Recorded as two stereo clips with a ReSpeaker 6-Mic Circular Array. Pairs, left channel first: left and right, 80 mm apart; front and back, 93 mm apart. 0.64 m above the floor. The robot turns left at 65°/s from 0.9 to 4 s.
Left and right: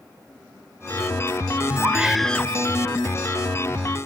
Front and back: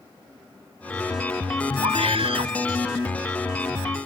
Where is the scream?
155° right; by 2.5 s 155° left.